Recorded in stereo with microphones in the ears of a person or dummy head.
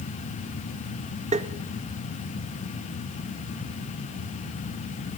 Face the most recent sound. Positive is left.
turn(degrees=-30)  # may be behind; listen again after turning